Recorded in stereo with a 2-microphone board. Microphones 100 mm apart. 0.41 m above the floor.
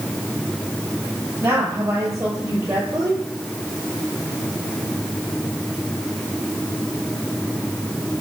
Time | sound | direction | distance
1.4 | a woman speaking | 30° right (ahead or behind) | 9.5 m